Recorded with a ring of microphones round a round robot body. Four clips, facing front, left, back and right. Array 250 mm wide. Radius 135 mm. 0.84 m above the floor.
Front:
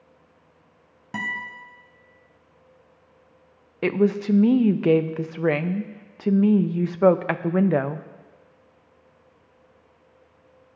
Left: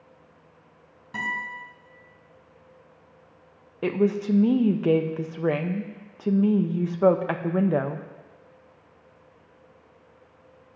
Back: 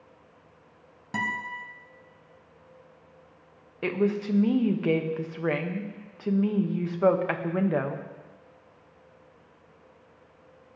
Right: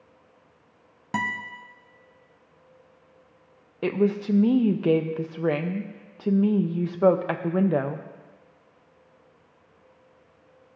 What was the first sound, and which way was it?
A guitar, 80° right.